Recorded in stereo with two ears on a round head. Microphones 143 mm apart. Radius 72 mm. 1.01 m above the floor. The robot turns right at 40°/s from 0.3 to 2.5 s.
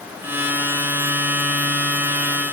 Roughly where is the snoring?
No snoring in this recording.